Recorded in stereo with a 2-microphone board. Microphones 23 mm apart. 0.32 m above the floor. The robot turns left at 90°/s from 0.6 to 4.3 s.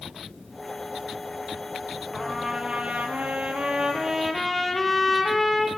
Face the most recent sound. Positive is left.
turn(degrees=180)